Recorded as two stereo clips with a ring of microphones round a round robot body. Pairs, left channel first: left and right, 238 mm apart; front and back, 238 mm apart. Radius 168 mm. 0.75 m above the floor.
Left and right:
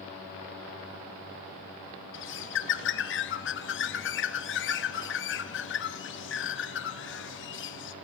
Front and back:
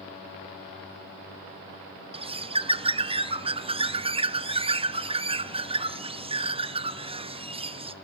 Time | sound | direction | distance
2.1 | a bird | 115° left | 0.7 m